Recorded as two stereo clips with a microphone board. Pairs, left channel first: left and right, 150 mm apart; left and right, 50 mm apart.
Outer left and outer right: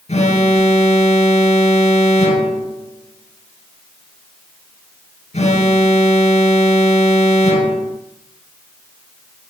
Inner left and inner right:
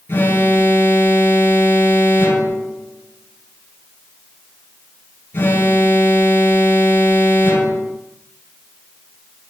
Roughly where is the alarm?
Left.